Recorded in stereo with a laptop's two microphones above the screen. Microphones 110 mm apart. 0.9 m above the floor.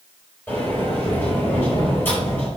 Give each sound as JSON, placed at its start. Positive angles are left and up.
{"t": 0.5, "sound": "a sliding door", "side_deg": 20, "distance_m": 4.5}